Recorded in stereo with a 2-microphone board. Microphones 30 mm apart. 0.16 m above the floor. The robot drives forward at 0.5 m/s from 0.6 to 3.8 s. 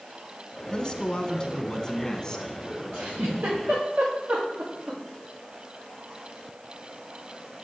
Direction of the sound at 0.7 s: 25° left (ahead or behind).